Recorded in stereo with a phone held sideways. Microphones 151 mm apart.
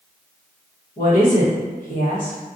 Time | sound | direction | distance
1.0 | a woman speaking | 65° left (ahead or behind) | 1.4 m